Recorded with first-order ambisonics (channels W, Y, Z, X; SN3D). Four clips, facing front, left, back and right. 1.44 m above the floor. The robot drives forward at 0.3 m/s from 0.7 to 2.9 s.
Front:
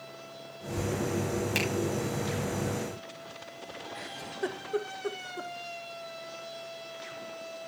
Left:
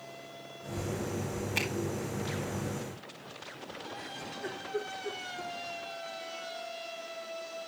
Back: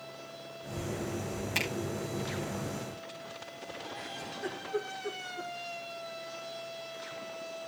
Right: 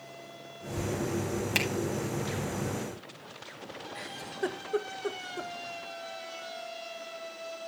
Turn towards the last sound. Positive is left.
turn(degrees=-60)